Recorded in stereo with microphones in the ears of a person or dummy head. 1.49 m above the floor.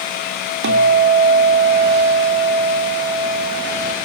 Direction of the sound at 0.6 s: 60° right (ahead or behind).